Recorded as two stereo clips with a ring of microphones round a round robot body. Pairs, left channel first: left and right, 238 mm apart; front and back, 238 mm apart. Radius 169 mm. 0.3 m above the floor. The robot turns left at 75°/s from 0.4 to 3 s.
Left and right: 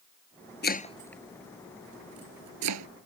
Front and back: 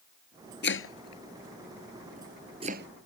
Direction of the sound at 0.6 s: 45° left.